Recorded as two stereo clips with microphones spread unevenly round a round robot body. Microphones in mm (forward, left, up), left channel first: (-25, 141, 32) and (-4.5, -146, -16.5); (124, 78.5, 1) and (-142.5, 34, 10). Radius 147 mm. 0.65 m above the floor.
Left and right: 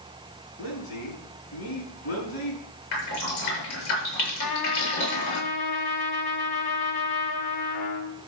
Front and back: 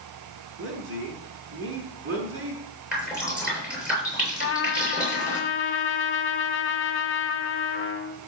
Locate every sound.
0.6 s a man speaking: 140° left, 6.5 m
2.9 s dripping: 105° left, 8 m
4.4 s a trumpet: 55° left, 1.7 m